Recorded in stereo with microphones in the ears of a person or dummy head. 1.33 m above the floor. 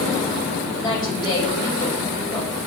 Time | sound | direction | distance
0.8 | a woman speaking | 20° left (ahead or behind) | 4.5 m